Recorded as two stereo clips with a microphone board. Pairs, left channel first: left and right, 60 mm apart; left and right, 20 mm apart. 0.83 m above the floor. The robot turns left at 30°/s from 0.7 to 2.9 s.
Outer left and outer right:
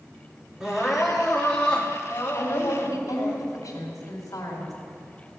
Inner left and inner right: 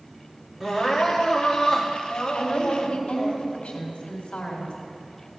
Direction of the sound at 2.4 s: 75° left (ahead or behind).